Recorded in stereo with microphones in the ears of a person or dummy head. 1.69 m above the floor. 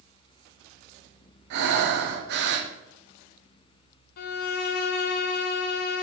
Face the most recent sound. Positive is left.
turn(degrees=50)  # may be behind; listen again after turning